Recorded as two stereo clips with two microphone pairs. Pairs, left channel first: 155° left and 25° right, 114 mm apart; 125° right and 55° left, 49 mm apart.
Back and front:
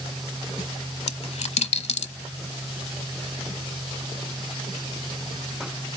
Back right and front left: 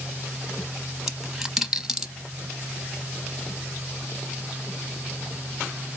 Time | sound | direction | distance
1.1 | a dropped coin | 140° left | 0.8 m